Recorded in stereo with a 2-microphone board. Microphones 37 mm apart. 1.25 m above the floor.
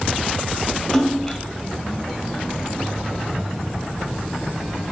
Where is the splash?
5° right (ahead or behind), 2.5 m.